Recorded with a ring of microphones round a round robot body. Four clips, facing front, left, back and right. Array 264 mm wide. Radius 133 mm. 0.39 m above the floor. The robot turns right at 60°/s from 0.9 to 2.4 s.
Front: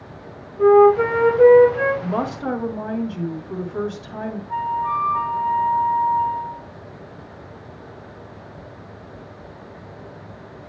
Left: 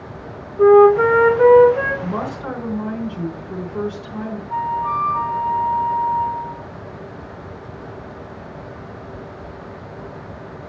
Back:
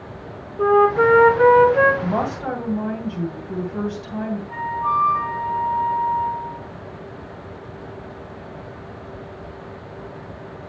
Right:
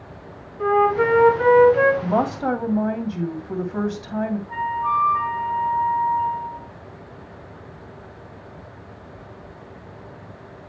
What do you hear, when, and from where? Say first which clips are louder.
0.6 s a flute: left 8 dB, front 3 dB; 135° left, 2 m; by 1.9 s 165° right, 2 m
2.0 s a woman speaking: right 4 dB, back 1 dB; 115° right, 2.5 m; by 4.4 s 90° right, 2.5 m
4.5 s a flute: left 4 dB, front 1 dB; 135° right, 1.5 m